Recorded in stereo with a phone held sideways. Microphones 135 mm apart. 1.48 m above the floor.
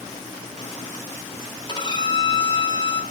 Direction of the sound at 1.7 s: 35° left (ahead or behind).